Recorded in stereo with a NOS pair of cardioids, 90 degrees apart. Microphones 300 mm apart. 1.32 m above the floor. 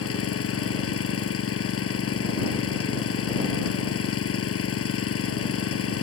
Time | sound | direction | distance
0.0 | an engine running | 50° left | ?